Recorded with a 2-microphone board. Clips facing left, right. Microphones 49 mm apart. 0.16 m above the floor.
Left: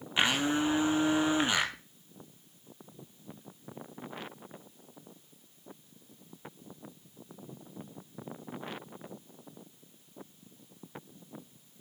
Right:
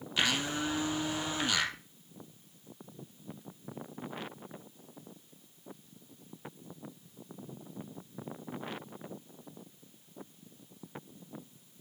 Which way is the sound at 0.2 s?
25° left (ahead or behind).